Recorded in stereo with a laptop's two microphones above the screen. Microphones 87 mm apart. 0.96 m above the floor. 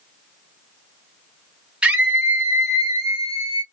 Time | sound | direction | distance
1.8 | a scream | 10° right (ahead or behind) | 0.9 m